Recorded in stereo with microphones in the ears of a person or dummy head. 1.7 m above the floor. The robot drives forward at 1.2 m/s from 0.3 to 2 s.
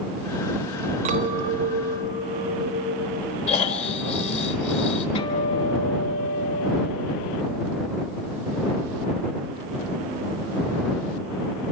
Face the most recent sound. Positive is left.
turn(degrees=40)  # may be behind; listen again after turning